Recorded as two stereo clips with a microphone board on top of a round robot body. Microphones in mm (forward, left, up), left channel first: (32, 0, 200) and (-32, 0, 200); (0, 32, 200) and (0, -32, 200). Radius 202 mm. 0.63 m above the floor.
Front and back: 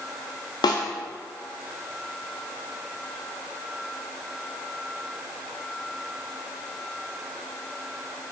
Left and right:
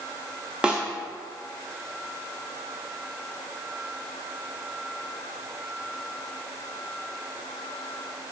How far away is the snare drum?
About 0.6 m.